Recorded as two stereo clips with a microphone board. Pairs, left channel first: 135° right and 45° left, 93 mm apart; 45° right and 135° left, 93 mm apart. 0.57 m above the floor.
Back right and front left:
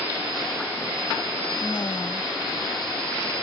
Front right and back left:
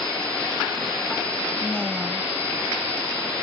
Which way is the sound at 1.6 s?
125° right.